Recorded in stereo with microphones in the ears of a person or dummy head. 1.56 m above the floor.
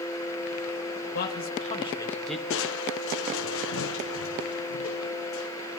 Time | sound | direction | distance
1.1 | a man speaking | 55° left (ahead or behind) | 2 m
2.5 | crushing | 65° left (ahead or behind) | 0.9 m